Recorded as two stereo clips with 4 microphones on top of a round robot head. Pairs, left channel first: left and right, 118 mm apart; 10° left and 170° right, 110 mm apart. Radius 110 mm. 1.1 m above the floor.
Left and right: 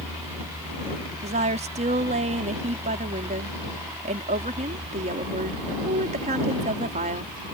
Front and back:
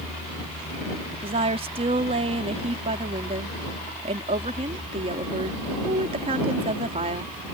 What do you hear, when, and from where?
1.2 s a woman speaking: 130° right